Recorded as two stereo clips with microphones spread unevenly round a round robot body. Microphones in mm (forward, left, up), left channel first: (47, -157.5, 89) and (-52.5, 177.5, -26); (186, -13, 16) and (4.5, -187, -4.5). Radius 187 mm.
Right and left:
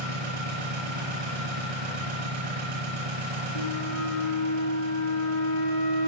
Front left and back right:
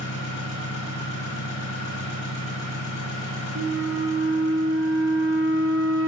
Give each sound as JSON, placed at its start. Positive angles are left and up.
{"t": 0.0, "sound": "an engine running", "azimuth_deg": 105, "distance_m": 7.0}
{"t": 3.5, "sound": "a flute", "azimuth_deg": -100, "distance_m": 5.0}